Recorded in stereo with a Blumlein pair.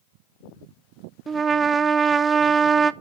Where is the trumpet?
15° right, 0.5 m.